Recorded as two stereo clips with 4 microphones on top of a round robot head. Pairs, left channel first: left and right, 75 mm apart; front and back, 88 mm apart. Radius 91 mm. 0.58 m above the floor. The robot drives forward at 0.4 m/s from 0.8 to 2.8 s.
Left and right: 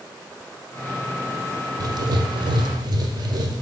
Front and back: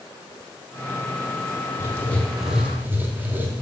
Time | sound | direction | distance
1.8 | writing | 60° right | 0.5 m